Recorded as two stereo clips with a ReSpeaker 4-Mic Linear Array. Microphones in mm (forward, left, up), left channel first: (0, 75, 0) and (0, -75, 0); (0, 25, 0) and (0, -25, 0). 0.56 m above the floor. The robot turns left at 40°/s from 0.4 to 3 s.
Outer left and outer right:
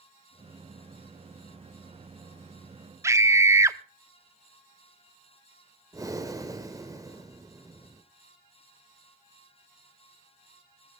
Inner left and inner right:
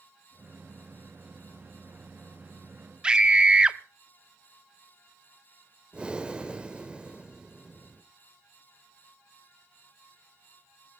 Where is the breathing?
20° right (ahead or behind), 1.5 m.